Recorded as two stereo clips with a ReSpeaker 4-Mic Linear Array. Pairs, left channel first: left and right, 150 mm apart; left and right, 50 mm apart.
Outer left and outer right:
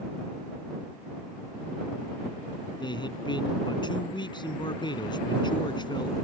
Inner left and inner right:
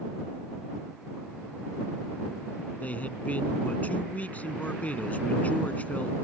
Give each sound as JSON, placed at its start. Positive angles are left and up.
{"t": 2.8, "sound": "a man speaking", "side_deg": 30}